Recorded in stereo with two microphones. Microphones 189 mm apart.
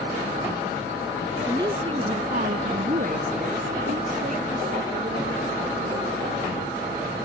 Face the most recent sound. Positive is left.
turn(degrees=-40)  # may be behind; listen again after turning